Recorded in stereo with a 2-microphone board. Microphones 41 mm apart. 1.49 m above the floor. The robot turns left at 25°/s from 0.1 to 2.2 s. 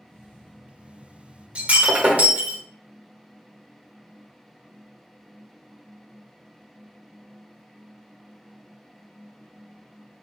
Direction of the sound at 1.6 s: 30° right (ahead or behind).